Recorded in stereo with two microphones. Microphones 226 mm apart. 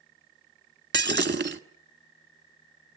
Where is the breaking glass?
50° right (ahead or behind), 1.2 m.